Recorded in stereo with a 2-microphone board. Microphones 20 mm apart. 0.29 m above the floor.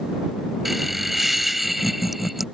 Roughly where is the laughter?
Centre.